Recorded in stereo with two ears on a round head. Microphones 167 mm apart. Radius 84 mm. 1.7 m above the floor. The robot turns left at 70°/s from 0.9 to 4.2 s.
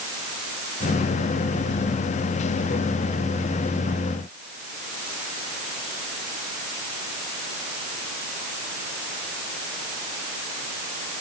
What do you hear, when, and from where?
Only background noise.